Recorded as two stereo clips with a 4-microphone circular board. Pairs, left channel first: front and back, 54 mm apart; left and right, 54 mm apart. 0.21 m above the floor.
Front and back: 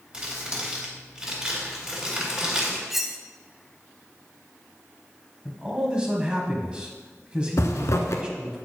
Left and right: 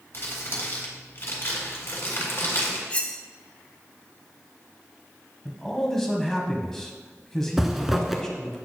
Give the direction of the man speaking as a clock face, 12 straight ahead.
7 o'clock.